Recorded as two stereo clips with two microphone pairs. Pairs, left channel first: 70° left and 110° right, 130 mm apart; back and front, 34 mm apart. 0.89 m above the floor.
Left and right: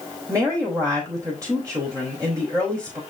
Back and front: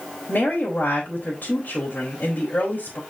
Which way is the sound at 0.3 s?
175° right.